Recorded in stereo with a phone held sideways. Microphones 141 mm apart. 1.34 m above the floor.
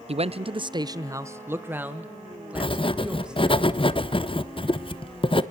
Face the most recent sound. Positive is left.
turn(degrees=40)  # may be behind; listen again after turning